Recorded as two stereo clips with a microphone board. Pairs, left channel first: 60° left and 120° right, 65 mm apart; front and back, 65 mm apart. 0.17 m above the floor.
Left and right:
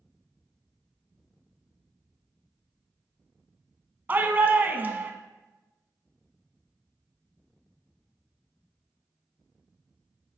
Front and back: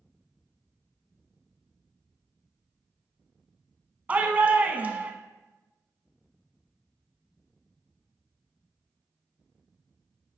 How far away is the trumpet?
No trumpet in this recording.